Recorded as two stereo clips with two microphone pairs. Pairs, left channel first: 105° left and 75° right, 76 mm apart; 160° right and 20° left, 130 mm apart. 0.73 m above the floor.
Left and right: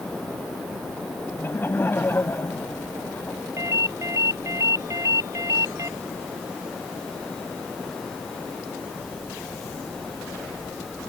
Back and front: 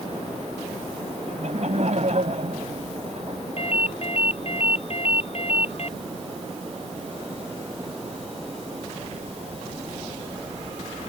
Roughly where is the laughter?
Ahead left.